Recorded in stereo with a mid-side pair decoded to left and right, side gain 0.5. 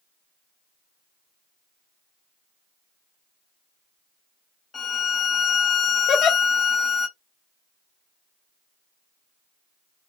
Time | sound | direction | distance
4.7 | a violin | 30° left | 0.7 m
6.1 | a giggle | 65° left | 0.9 m